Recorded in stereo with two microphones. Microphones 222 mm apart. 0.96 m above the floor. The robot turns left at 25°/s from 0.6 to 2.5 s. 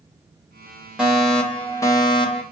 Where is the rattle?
No rattle in this recording.